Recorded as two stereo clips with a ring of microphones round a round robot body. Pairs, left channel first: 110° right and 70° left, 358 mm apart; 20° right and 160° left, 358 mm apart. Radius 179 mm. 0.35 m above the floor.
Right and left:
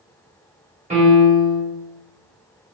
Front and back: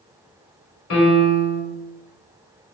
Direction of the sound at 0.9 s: 5° left.